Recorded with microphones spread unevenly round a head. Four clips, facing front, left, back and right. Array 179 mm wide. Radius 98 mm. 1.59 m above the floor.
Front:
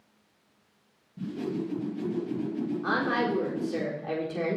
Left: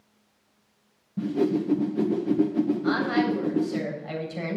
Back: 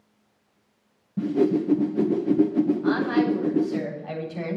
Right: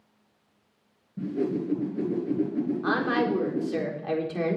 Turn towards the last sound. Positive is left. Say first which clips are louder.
# left 1 dB, back 6 dB
turn(degrees=-60)